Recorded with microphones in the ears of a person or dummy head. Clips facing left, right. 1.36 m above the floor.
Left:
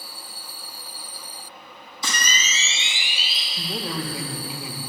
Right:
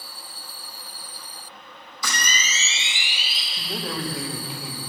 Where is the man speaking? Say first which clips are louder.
Left 1 dB; 5° right (ahead or behind), 0.9 m.